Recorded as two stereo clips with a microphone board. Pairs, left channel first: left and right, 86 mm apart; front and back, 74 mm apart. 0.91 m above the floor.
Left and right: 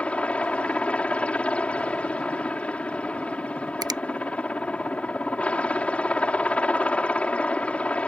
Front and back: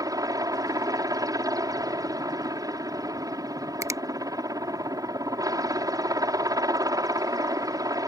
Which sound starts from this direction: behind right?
A finger snap, at 3.8 s.